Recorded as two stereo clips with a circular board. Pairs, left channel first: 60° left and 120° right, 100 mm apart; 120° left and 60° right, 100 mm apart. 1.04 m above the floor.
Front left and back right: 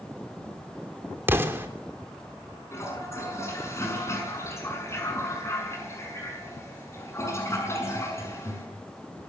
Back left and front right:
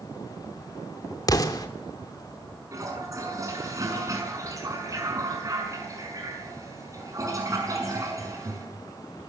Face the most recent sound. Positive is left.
turn(degrees=-5)